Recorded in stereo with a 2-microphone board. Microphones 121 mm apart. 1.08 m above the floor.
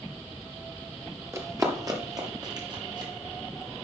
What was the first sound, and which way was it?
Running footsteps, 25° right (ahead or behind).